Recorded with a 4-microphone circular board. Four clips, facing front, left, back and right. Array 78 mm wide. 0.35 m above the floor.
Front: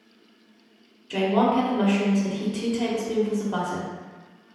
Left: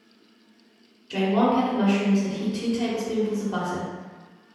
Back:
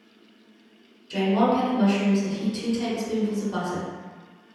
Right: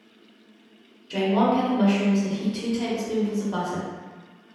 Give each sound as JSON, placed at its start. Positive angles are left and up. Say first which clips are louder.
{"t": 1.1, "sound": "a woman speaking", "louder": "even, even", "azimuth_deg": 5, "distance_m": 0.9}